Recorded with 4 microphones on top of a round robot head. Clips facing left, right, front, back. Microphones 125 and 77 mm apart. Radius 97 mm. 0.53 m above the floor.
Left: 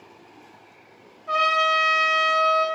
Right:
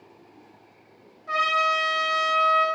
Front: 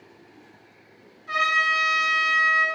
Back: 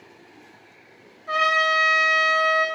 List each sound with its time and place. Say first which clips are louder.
1.3 s a trumpet: left 3 dB, back 2 dB; 150° left, 1.4 m